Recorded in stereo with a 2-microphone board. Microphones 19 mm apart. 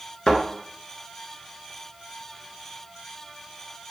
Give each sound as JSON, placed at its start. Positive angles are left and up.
{"t": 0.3, "sound": "a thud", "side_deg": 50, "distance_m": 1.4}